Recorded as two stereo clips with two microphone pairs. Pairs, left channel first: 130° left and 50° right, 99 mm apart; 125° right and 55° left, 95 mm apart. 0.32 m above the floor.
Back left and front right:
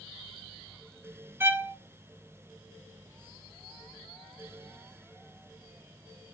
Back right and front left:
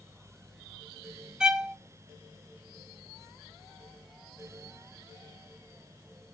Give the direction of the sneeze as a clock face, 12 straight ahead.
I don't hear a sneeze.